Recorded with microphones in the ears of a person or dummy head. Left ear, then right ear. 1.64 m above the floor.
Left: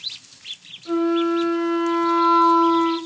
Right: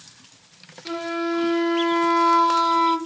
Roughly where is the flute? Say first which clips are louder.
Left 5 dB; right.